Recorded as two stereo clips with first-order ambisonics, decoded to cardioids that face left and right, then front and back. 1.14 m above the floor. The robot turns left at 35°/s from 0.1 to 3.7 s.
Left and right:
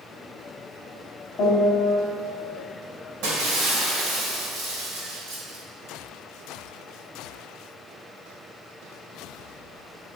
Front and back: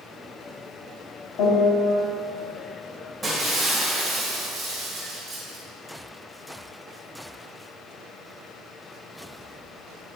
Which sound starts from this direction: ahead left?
A piano, at 1.4 s.